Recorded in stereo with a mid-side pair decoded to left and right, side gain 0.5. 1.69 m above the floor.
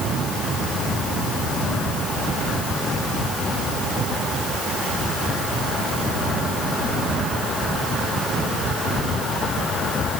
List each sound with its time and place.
Only background noise.